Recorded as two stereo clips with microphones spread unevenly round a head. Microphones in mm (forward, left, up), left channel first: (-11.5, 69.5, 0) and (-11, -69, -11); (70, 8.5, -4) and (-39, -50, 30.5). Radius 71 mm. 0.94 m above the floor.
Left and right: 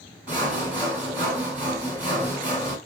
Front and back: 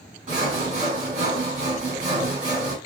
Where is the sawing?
170° right, 1.8 m.